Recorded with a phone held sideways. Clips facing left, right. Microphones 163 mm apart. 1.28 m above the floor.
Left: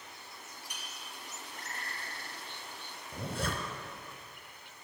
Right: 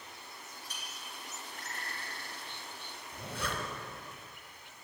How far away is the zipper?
About 1.4 m.